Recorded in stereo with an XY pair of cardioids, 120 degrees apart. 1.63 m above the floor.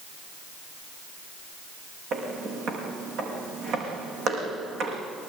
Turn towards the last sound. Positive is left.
turn(degrees=-70)